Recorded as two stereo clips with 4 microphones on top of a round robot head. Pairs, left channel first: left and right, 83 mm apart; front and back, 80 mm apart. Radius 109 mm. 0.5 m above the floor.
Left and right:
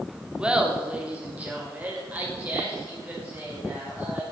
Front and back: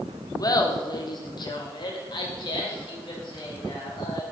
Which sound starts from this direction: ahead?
Laughter, at 0.4 s.